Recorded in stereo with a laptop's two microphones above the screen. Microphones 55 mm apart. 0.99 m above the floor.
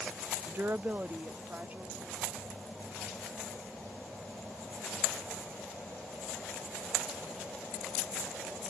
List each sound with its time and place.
0.5 s a woman speaking: 40° right (ahead or behind); by 2.4 s 35° right (ahead or behind)